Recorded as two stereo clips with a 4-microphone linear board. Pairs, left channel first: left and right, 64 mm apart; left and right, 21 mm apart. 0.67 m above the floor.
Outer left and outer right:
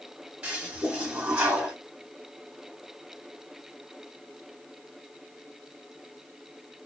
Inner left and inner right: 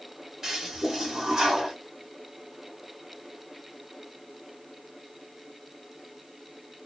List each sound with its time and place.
0.4 s a toilet flushing: 15° right (ahead or behind), 1.2 m